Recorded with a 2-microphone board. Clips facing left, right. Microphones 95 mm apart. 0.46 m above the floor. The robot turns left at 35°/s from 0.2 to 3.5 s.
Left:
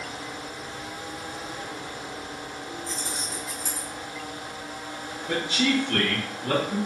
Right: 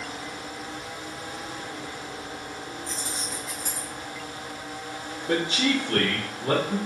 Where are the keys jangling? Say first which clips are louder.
Even; 45° right (ahead or behind), 1.2 m; by 3.9 s 60° right (ahead or behind), 1.2 m.